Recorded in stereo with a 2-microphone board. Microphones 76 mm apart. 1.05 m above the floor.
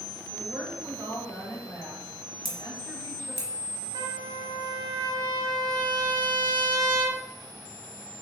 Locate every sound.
0.3 s a woman speaking: 55° right (ahead or behind), 2 m
2.5 s scissors: 40° left (ahead or behind), 1.2 m
3.9 s a trumpet: 55° right (ahead or behind), 0.6 m